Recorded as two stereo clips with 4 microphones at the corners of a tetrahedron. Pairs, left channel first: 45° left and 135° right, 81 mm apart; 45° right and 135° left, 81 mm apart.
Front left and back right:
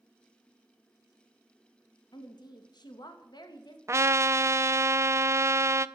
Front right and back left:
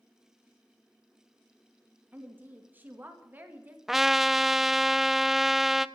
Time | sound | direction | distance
2.1 | a woman speaking | 70° left | 2.0 m
3.9 | a trumpet | 140° right | 0.5 m